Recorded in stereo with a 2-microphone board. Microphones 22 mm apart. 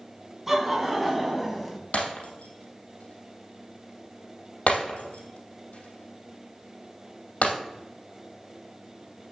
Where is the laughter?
10° right (ahead or behind), 3 m; by 1.8 s centre (ahead or behind), 2.5 m.